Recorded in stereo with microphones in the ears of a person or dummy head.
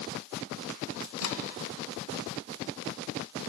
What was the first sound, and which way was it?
A microwave, 85° left.